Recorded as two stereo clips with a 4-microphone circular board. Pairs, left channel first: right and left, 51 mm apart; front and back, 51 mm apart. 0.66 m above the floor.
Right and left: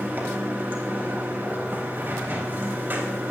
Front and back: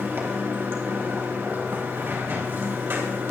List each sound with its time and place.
0.0 s running water: 140° left, 4 m